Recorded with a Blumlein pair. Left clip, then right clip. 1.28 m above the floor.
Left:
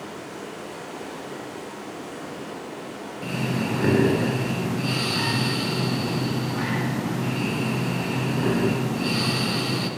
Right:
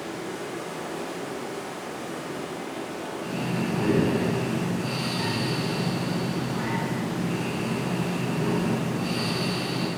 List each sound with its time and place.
0.0 s running water: 65° right, 1.2 m
3.2 s breathing: 70° left, 0.6 m